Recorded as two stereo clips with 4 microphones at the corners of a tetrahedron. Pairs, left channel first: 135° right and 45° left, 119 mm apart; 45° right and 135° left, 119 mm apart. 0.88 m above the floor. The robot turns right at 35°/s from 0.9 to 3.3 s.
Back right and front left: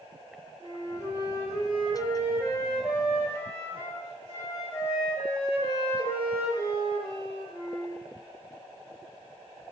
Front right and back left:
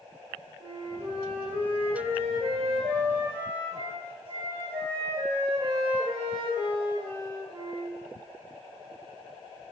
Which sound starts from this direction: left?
A flute, at 0.6 s.